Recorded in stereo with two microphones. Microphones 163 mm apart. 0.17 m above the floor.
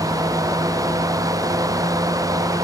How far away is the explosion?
No explosion in this recording.